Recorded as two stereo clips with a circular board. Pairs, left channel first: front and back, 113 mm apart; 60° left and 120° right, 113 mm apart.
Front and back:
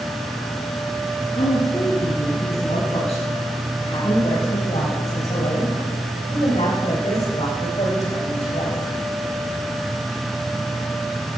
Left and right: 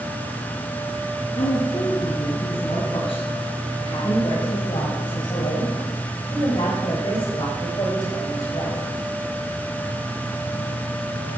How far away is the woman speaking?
About 3.5 m.